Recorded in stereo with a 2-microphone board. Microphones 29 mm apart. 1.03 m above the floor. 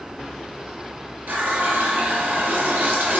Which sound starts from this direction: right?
A running tap, at 1.3 s.